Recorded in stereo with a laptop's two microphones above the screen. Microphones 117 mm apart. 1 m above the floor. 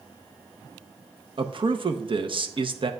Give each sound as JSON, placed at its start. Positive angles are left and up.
{"t": 1.4, "sound": "a man speaking", "side_deg": -45, "distance_m": 0.7}